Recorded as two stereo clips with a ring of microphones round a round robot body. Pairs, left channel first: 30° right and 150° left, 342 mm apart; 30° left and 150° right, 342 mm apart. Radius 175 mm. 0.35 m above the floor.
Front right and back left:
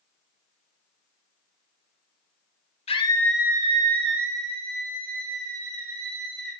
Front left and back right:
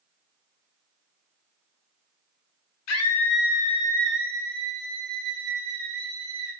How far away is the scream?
About 1.1 m.